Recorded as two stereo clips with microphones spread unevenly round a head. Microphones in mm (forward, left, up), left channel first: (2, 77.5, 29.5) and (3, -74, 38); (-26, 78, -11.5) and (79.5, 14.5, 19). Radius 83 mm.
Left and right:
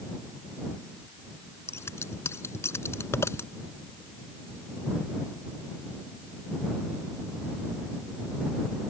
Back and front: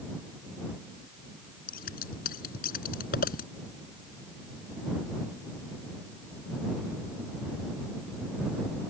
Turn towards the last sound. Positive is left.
turn(degrees=165)